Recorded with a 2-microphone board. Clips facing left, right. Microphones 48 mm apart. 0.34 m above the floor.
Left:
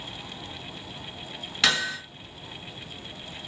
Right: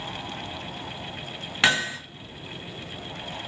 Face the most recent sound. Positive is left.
turn(degrees=-25)  # may be behind; listen again after turning